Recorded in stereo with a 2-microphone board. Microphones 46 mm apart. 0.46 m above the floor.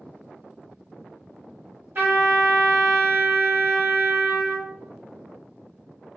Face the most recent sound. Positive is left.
turn(degrees=-50)  # may be behind; listen again after turning